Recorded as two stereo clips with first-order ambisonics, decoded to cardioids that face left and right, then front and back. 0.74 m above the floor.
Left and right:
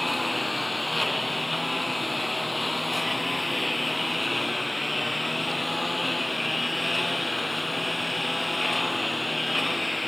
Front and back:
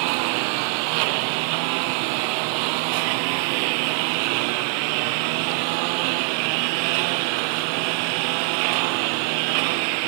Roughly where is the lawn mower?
Behind.